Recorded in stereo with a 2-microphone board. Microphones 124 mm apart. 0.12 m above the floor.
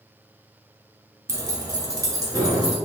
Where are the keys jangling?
25° right (ahead or behind), 1.0 m; by 2.8 s 30° right (ahead or behind), 1.2 m.